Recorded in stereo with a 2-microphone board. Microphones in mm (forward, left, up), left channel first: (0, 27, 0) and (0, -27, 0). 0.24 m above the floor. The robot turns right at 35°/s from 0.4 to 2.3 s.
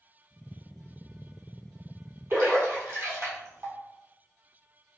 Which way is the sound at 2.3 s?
45° right (ahead or behind).